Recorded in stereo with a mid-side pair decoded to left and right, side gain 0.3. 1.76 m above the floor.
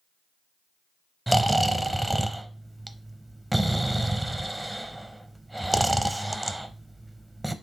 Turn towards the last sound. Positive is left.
turn(degrees=-15)